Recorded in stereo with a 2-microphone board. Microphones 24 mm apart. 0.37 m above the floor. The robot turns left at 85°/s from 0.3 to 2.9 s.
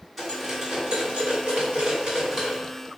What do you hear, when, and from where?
0.2 s cutlery clinking: 15° left (ahead or behind), 1.8 m; by 2.6 s centre (ahead or behind), 1.8 m